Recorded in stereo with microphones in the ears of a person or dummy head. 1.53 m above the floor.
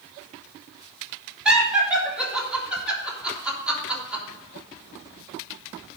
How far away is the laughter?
About 3.5 m.